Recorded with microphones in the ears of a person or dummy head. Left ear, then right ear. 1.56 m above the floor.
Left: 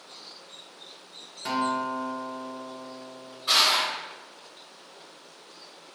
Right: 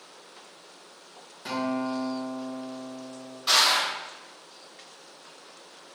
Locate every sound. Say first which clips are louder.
1.4 s a guitar: left 3 dB; 10° left (ahead or behind), 0.6 m
3.5 s crushing: even; 50° right (ahead or behind), 1.8 m